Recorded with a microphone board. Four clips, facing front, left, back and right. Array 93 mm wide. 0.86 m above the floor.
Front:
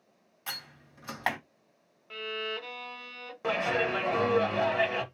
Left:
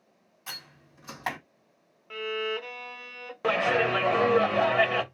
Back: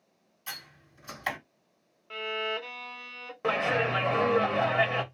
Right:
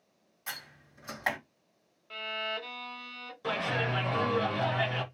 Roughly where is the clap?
Left.